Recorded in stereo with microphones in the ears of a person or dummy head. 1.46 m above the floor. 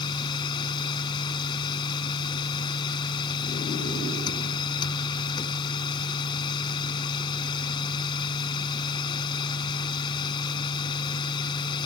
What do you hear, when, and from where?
0.0 s a machine running: 25° left (ahead or behind)